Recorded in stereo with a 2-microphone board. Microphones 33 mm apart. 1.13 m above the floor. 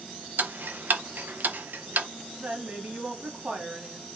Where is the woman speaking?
45° right (ahead or behind), 2 m.